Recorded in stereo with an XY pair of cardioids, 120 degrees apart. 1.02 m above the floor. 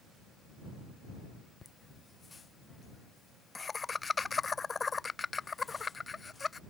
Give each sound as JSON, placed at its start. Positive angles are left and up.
{"t": 1.6, "sound": "laughter", "azimuth_deg": 25}